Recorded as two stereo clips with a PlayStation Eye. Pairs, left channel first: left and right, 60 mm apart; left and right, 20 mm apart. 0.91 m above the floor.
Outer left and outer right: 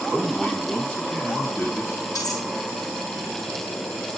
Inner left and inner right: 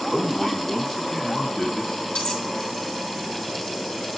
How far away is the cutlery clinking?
About 9 m.